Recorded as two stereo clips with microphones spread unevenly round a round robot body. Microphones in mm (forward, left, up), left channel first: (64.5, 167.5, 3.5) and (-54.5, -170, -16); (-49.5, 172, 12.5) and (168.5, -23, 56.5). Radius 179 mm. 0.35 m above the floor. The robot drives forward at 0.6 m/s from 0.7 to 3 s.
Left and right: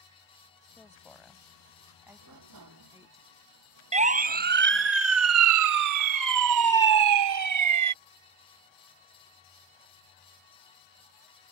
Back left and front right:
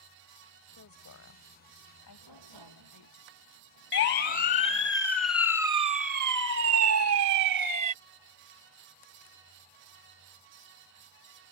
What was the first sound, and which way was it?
A woman speaking, 155° left.